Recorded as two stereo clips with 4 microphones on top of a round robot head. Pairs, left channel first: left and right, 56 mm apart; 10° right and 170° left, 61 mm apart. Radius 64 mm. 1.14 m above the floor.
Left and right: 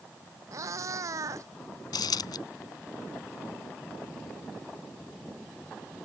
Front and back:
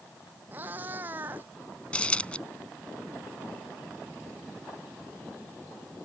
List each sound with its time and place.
0.5 s a cat meowing: 120° right
1.9 s a dropped coin: 60° left